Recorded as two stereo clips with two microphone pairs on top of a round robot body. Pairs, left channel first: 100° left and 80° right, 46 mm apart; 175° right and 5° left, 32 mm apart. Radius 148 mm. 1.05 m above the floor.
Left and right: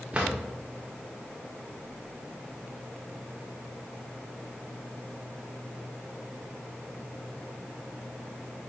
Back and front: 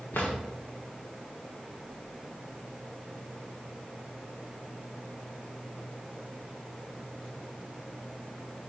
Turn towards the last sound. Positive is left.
turn(degrees=-150)